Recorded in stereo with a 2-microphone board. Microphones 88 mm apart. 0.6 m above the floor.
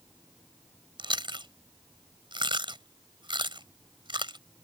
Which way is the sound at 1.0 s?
65° right (ahead or behind).